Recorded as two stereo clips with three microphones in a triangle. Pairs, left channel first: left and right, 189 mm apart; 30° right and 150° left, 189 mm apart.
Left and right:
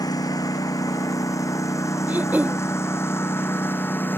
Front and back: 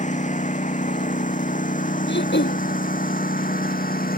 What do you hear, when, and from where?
0.0 s a lawn mower: 20° left; by 4.2 s 10° left
2.1 s throat clearing: 10° right